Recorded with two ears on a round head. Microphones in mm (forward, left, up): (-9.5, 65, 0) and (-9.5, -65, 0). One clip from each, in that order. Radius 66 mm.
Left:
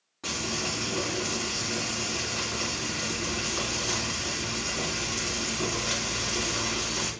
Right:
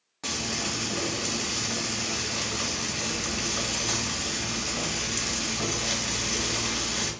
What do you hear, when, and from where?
0.2 s frying: 40° right (ahead or behind), 2.5 m